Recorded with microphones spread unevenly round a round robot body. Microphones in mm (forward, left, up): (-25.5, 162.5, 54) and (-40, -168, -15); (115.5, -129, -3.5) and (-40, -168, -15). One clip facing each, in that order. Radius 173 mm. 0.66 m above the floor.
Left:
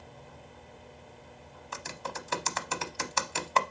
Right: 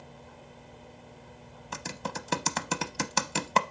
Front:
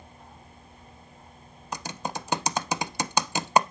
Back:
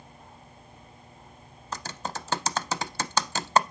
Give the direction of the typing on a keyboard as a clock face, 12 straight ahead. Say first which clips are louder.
Right 3 dB, front 2 dB; 2 o'clock.